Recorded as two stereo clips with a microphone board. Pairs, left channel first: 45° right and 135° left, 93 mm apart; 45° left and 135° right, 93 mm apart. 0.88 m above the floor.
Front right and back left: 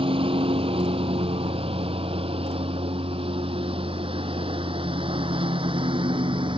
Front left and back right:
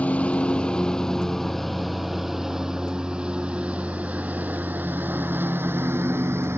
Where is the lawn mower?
120° left; by 6.6 s 165° left.